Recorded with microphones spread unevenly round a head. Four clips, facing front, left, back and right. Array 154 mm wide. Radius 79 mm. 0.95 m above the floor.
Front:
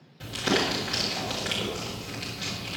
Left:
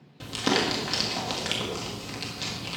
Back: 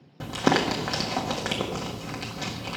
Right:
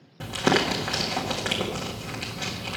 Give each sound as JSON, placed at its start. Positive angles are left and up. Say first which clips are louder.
{"t": 0.2, "sound": "crumpling", "louder": "right 3 dB, back 4 dB", "azimuth_deg": -160, "distance_m": 1.6}